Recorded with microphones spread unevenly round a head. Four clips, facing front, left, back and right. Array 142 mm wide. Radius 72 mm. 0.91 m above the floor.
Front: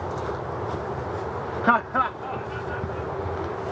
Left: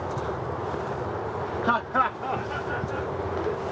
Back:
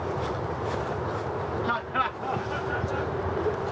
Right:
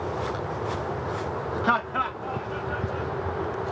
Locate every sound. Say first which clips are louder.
1.6 s laughter: left 1 dB, front 9 dB; 10° right, 0.8 m; by 3.6 s 140° left, 2.5 m